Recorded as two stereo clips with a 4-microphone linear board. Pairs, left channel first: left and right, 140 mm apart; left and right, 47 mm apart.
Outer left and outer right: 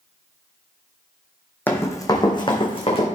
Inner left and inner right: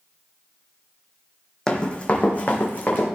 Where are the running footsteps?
15° left (ahead or behind), 1.5 m; by 3.1 s 45° left (ahead or behind), 2.5 m.